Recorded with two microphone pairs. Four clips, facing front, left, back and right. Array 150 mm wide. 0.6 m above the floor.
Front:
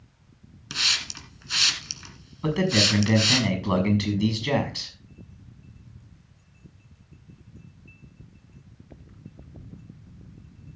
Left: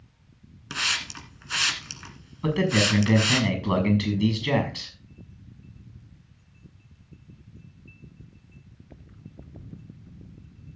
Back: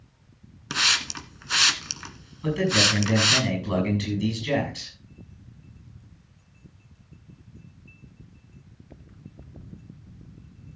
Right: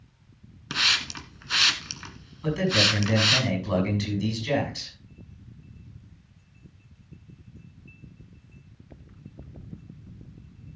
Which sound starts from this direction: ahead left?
A man speaking, at 2.4 s.